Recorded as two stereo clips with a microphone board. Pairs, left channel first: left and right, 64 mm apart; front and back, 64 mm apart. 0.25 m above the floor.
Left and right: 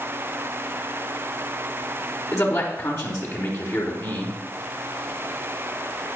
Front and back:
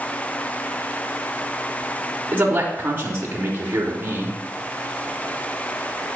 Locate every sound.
2.3 s a man speaking: 125° left, 3 m